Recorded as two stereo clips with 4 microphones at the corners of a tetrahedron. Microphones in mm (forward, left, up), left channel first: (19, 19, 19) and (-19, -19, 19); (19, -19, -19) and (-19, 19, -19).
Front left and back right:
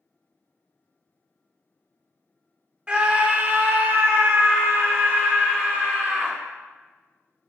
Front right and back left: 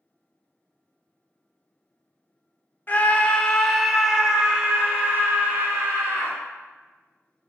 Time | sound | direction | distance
2.9 | a scream | 75° right | 1.0 m